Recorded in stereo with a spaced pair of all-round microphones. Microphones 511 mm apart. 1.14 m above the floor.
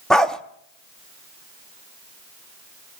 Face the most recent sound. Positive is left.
turn(degrees=0)  # may be behind; listen again after turning